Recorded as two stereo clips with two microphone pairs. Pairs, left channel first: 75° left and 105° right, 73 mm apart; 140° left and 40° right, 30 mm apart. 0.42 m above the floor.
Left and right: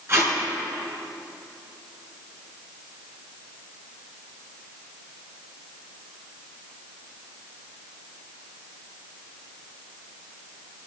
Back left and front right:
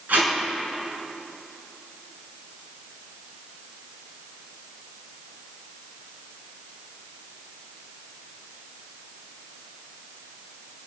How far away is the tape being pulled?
About 3.5 m.